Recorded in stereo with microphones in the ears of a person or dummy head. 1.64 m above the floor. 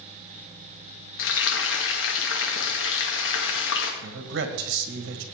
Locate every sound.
1.2 s frying: 70° left (ahead or behind), 1.9 m
4.0 s a man speaking: 65° right (ahead or behind), 1.6 m